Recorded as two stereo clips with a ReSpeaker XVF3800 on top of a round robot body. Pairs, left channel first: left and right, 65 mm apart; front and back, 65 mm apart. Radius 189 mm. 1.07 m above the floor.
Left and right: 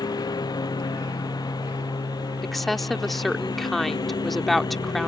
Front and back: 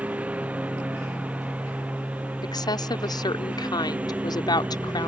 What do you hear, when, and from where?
0.0 s a lawn mower: 110° left
2.4 s a woman speaking: straight ahead